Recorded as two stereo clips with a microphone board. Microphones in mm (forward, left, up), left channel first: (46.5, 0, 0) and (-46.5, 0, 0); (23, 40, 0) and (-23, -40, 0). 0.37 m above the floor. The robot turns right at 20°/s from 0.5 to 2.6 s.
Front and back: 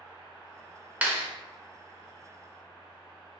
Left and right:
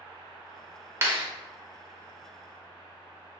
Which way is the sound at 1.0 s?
120° right.